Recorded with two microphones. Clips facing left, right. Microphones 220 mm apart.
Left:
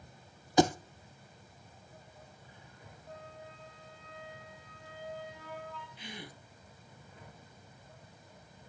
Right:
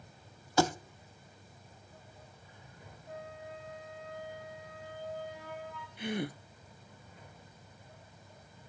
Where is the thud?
20° left (ahead or behind), 0.8 m.